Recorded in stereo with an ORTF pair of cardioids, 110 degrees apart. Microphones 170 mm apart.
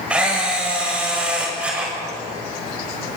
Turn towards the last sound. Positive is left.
turn(degrees=-5)